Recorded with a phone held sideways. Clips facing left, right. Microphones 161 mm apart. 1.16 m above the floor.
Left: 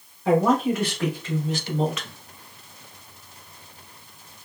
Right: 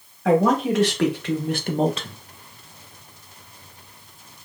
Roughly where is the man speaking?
Right.